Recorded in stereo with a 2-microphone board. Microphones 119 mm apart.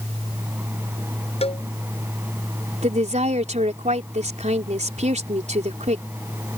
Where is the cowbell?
55° left (ahead or behind).